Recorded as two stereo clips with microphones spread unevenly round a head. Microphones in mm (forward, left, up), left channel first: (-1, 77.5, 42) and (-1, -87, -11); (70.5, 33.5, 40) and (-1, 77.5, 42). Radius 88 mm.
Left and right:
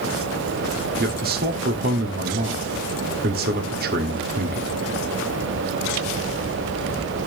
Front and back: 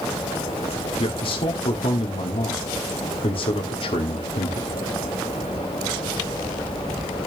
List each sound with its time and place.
1.0 s a man speaking: 60° right, 1.8 m